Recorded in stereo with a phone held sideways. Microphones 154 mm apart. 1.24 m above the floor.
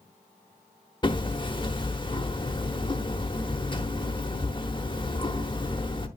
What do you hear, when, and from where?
1.0 s hammering: 30° left (ahead or behind), 1.1 m